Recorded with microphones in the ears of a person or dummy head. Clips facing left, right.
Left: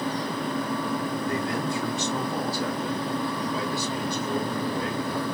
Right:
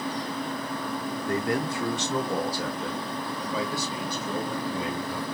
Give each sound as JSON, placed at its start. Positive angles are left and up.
{"t": 1.3, "sound": "a man speaking", "side_deg": -45, "distance_m": 0.9}